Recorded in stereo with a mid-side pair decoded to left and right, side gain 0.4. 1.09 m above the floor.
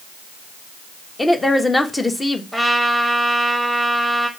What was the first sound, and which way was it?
A woman speaking, 20° left.